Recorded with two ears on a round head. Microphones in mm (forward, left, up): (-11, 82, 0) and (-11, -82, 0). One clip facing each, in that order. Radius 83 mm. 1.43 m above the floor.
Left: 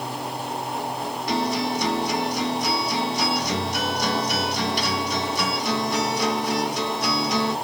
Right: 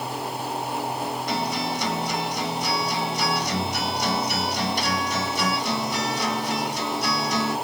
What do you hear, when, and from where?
1.3 s a guitar: 55° left (ahead or behind), 1.7 m